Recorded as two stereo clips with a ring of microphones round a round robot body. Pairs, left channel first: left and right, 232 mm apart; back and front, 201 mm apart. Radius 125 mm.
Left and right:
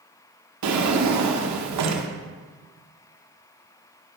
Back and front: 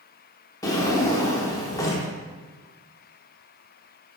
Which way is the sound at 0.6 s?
105° right.